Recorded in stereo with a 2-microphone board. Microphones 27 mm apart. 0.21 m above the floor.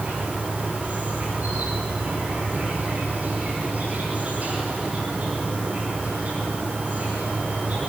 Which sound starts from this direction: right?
An insect, at 0.0 s.